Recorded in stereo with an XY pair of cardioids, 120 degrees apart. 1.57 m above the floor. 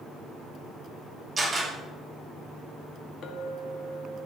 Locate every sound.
1.4 s a camera shutter: 25° right, 6.5 m
3.2 s a clink: 60° left, 2 m